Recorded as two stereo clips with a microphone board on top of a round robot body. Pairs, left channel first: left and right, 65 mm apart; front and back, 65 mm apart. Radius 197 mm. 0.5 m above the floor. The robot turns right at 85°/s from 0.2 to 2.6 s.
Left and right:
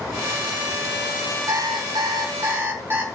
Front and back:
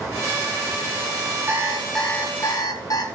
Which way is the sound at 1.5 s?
125° right.